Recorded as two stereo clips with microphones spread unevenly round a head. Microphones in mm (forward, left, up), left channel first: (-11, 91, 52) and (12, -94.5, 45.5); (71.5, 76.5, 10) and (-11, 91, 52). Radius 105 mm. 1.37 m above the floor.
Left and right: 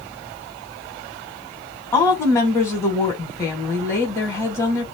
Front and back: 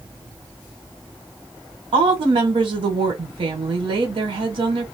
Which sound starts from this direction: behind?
A woman speaking, at 1.9 s.